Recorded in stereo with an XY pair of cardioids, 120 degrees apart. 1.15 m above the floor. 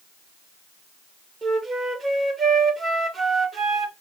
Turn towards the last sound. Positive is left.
turn(degrees=-35)